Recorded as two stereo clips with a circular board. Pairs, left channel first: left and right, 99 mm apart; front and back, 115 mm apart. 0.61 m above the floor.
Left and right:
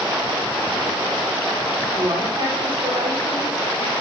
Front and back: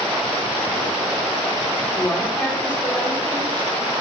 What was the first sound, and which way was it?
A woman speaking, 70° right.